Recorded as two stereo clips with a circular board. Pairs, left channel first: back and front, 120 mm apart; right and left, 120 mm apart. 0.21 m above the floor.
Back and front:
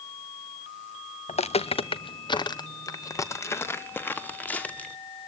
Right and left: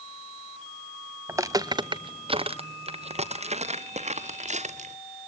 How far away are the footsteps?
About 1.4 m.